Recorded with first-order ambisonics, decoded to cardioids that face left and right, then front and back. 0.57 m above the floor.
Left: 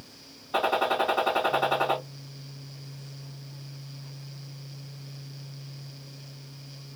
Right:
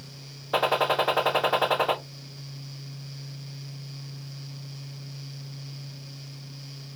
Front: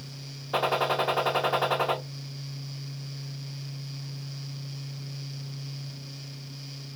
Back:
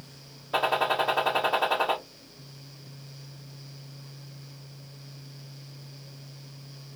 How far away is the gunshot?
About 1.3 m.